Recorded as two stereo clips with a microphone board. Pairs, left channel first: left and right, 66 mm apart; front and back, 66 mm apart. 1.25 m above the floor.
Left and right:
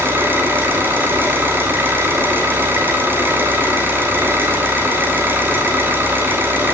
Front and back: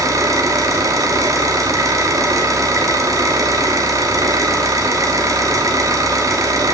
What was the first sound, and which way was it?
An engine running, 145° right.